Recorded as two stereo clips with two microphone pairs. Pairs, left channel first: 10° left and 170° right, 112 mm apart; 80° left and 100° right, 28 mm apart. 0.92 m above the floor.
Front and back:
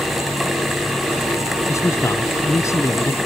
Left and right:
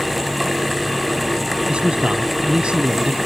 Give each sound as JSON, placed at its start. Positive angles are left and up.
{"t": 1.7, "sound": "a man speaking", "azimuth_deg": -50}